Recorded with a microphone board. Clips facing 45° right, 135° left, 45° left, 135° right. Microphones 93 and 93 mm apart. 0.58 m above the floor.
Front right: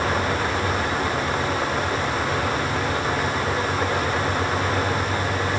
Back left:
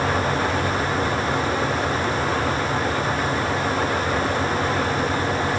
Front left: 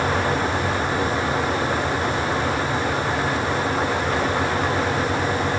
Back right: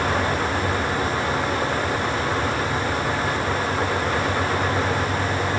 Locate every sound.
Only background noise.